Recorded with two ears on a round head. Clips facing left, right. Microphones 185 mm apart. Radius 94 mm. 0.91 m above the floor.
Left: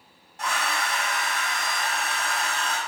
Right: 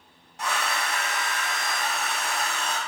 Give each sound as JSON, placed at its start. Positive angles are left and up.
{"t": 0.4, "sound": "a hair dryer", "side_deg": -60, "distance_m": 1.1}